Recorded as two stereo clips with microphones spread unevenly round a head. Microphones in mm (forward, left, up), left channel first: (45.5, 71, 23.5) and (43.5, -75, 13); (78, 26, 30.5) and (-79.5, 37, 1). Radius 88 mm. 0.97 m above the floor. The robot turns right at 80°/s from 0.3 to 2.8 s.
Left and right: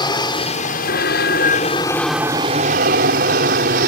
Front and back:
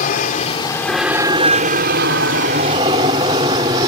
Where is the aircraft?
30° left; by 3.9 s 120° right.